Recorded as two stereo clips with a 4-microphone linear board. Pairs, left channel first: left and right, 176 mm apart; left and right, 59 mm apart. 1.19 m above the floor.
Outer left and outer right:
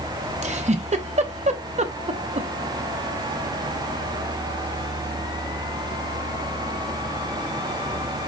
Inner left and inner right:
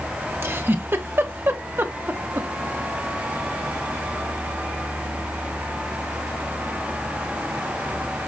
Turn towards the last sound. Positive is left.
turn(degrees=-40)  # may be behind; listen again after turning